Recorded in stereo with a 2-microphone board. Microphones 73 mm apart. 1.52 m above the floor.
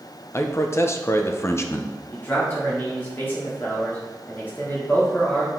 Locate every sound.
0.3 s a man speaking: 35° left (ahead or behind), 0.7 m
2.1 s a man speaking: 25° left (ahead or behind), 3 m